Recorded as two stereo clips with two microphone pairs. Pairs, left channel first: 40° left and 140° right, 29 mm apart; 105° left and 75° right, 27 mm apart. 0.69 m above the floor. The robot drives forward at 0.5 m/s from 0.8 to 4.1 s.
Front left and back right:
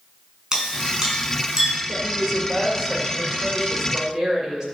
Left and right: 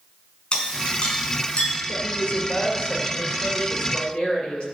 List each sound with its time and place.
0.5 s a clink: 145° left, 4.5 m; by 1.7 s 150° left, 5 m
1.9 s a woman speaking: 135° left, 1.6 m; by 4.6 s 155° left, 2.5 m